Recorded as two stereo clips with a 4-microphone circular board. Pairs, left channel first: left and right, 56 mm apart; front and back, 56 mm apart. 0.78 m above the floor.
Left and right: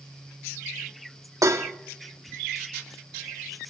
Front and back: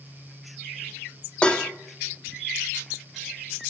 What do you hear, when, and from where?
1.4 s dishes clattering: 70° right, 0.8 m